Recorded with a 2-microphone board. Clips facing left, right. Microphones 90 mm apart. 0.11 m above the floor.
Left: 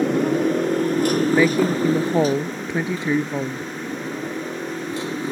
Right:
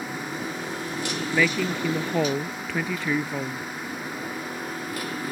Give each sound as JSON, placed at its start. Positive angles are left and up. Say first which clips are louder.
{"t": 0.0, "sound": "a motorcycle", "louder": "left 13 dB", "side_deg": 60}
{"t": 1.3, "sound": "a woman speaking", "louder": "left 3 dB", "side_deg": 20}